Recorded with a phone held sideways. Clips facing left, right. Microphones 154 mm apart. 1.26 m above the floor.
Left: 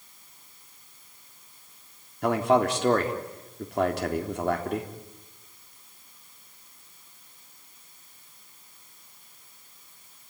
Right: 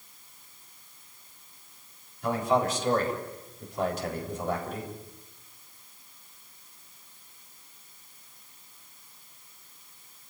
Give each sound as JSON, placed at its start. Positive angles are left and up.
{"t": 2.2, "sound": "a man speaking", "side_deg": 70, "distance_m": 3.5}